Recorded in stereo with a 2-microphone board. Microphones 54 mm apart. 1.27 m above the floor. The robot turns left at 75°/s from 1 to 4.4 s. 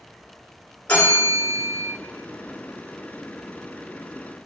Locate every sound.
0.9 s a bell: 30° left, 1.9 m; by 1.9 s 35° right, 1.9 m